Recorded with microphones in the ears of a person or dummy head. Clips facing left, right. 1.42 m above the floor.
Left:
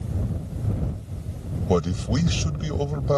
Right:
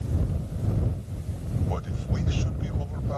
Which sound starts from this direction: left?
A man speaking, at 1.7 s.